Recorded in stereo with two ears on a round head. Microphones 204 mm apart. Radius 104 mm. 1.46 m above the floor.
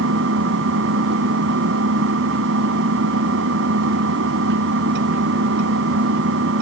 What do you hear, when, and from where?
0.0 s an engine running: 55° right (ahead or behind)